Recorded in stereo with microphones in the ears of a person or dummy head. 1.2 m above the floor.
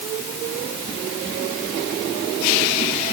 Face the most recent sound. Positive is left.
No sound to turn to.